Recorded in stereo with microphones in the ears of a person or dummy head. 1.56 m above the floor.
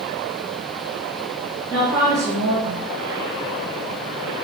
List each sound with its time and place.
1.7 s a woman speaking: 20° right (ahead or behind), 1.1 m